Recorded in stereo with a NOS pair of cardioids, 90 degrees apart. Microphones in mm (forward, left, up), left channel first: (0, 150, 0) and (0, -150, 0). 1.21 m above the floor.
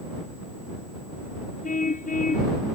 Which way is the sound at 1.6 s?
25° left.